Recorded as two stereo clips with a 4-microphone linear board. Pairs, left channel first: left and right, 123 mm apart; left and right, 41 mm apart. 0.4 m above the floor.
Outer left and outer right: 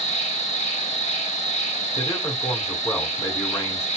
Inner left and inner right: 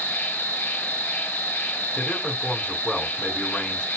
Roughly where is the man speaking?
Left.